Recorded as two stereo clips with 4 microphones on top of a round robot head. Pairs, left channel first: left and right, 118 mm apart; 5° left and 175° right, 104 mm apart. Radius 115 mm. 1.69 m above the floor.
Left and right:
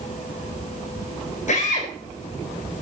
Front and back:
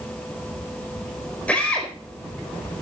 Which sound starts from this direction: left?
A drill, at 1.5 s.